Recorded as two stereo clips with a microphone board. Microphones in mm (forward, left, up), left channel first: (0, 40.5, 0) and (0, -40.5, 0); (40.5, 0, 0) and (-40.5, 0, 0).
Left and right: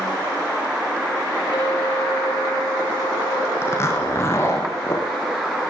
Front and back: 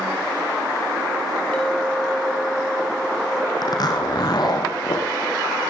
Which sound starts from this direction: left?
A clink, at 1.5 s.